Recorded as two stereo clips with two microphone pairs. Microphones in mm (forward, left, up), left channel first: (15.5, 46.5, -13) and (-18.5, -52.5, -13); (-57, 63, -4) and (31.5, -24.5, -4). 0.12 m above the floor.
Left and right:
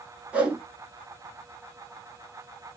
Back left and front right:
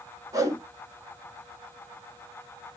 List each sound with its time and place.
0.3 s a whoosh: 50° right, 0.9 m